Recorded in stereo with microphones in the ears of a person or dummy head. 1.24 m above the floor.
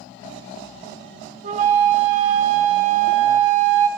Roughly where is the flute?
Right.